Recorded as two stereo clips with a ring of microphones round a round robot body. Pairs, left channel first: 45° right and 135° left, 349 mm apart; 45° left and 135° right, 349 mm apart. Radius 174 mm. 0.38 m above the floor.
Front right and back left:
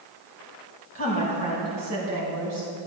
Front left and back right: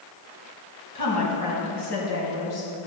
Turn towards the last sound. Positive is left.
turn(degrees=100)